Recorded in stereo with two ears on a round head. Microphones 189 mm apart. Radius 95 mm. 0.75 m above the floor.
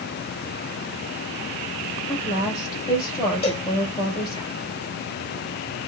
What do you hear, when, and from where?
2.1 s a woman speaking: 20° left (ahead or behind), 3.5 m
3.4 s a cowbell: 30° left (ahead or behind), 2.5 m